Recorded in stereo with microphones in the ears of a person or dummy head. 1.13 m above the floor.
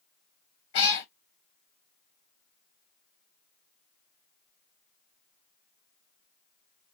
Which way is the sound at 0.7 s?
30° left (ahead or behind).